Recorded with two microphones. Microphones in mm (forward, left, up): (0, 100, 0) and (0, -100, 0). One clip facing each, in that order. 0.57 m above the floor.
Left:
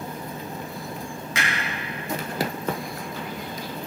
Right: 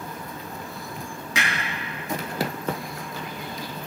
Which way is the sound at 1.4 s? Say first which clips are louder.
Right 1 dB; centre (ahead or behind).